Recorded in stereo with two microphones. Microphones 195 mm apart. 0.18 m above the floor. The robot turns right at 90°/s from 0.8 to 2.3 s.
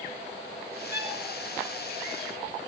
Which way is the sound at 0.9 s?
55° left (ahead or behind).